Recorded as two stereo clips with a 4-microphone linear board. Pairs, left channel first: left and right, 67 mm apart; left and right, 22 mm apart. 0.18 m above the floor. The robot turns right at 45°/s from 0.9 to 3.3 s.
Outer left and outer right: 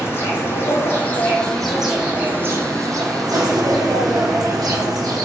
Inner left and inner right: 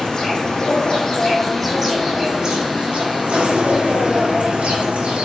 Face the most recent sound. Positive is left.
turn(degrees=-110)